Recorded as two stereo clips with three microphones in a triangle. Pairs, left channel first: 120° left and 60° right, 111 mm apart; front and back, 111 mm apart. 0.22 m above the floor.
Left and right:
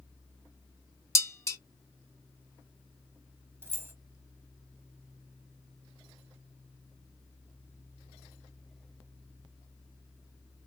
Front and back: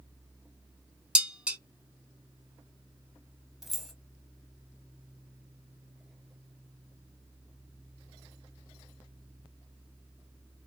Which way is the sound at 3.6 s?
95° right.